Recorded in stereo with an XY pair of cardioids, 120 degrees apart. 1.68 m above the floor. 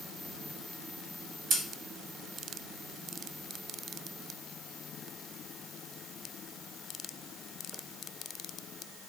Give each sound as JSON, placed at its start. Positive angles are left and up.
{"t": 1.5, "sound": "scissors", "azimuth_deg": -50, "distance_m": 1.6}